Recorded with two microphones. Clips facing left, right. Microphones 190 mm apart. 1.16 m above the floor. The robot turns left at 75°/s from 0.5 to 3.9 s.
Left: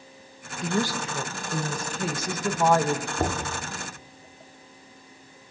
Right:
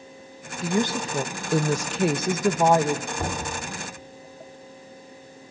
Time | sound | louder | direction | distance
0.6 | a woman speaking | right 3 dB | 5° right | 1.1 m
3.2 | knocking | left 2 dB | 35° left (ahead or behind) | 2.5 m